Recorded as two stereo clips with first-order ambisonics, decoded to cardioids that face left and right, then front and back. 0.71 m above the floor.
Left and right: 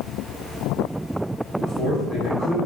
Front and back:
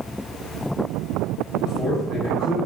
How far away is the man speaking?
About 1.2 m.